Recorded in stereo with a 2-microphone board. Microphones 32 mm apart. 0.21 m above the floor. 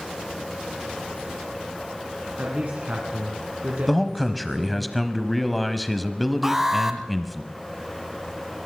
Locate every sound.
2.4 s a man speaking: 60° right (ahead or behind), 2 m
3.9 s a man speaking: centre (ahead or behind), 0.9 m
6.4 s an alarm: 10° right (ahead or behind), 1.4 m